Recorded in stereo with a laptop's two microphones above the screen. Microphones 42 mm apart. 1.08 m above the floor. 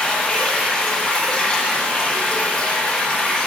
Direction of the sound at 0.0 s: 25° left (ahead or behind).